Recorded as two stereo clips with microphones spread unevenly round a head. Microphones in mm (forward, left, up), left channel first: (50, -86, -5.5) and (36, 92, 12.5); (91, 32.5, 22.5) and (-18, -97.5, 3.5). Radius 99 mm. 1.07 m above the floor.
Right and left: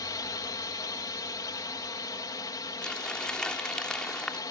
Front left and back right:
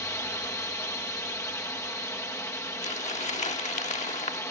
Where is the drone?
25° right.